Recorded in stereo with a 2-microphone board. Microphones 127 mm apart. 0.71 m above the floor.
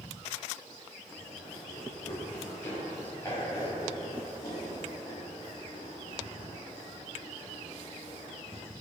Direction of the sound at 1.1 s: 10° left (ahead or behind).